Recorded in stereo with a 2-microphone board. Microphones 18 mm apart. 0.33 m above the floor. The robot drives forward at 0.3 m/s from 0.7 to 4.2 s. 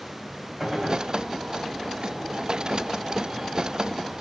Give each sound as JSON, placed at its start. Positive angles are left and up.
{"t": 0.6, "sound": "a gunshot", "side_deg": 15, "distance_m": 6.0}